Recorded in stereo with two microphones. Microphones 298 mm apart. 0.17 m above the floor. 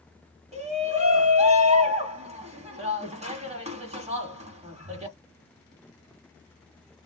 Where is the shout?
20° right (ahead or behind), 1.4 m.